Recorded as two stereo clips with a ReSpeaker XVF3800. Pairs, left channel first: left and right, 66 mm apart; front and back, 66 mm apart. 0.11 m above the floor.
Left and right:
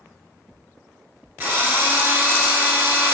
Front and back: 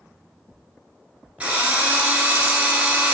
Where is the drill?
125° right, 1.7 m.